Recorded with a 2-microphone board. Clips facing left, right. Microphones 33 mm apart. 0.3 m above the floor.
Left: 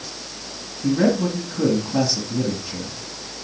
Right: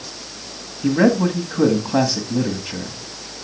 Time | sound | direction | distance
0.8 | a man speaking | 40° right (ahead or behind) | 1.5 m